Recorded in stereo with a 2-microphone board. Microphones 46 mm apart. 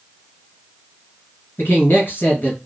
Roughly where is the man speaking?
Left.